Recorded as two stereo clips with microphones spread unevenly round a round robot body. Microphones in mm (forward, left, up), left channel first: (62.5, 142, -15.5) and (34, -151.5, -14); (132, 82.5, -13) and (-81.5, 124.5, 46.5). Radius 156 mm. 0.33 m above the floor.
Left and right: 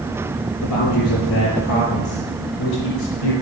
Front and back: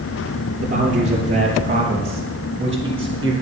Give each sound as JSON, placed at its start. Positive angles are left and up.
{"t": 0.6, "sound": "a man speaking", "azimuth_deg": 115, "distance_m": 6.5}